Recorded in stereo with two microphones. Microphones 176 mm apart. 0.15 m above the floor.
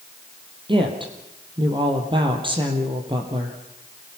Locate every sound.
0.7 s a woman speaking: 30° right (ahead or behind), 3.5 m